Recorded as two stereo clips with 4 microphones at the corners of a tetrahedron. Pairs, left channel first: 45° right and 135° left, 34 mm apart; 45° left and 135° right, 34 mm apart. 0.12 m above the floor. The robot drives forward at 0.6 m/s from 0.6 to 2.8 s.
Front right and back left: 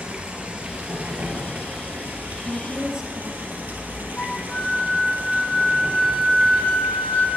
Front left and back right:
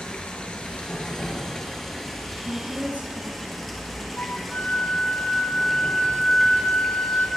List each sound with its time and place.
0.0 s running water: 95° left, 2 m; by 7.4 s 130° left, 2.5 m
2.5 s a woman speaking: 155° right, 2 m; by 4.1 s 160° right, 2 m
4.2 s a flute: 15° left, 1.7 m